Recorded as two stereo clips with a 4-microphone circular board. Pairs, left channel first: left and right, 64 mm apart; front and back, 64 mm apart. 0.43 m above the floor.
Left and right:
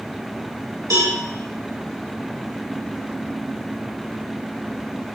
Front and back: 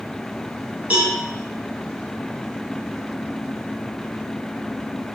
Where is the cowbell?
115° right, 2.5 m.